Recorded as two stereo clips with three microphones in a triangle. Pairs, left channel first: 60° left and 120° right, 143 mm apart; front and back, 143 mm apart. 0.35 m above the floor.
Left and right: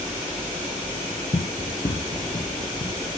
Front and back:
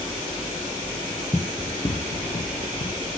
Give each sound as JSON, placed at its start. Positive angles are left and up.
{"t": 1.3, "sound": "running footsteps", "azimuth_deg": 85, "distance_m": 0.7}